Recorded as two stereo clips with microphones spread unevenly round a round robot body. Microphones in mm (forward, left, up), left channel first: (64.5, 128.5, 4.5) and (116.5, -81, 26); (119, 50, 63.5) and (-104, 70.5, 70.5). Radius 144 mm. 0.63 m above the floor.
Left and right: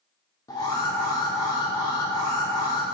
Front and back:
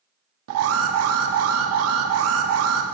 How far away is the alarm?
About 0.5 m.